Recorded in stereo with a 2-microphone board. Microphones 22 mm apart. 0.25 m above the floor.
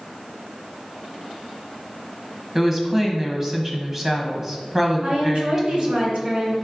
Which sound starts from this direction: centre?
A woman speaking, at 2.5 s.